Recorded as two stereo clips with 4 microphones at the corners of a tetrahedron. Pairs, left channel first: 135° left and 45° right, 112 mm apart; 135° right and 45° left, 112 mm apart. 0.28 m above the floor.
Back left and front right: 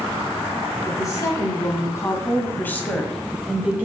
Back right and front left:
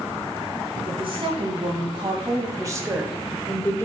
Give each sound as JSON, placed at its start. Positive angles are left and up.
{"t": 0.8, "sound": "a woman speaking", "azimuth_deg": 75, "distance_m": 3.0}